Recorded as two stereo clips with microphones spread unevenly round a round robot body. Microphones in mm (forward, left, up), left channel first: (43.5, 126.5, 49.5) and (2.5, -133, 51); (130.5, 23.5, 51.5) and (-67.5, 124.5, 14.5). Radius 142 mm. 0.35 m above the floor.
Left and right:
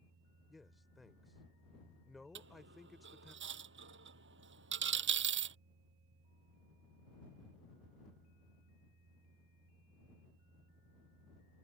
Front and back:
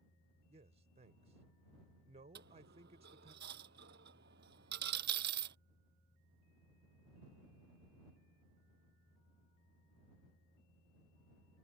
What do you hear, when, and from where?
0.5 s a man speaking: 170° left
2.4 s a dropped coin: 150° right